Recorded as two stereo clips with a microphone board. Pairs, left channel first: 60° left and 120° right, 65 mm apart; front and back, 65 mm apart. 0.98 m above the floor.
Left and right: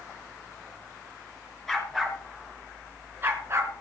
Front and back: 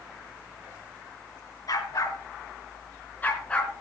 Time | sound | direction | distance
1.7 | a dog barking | 25° right | 4 m